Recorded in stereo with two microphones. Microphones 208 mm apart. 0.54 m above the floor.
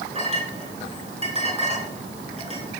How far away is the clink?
About 4.5 m.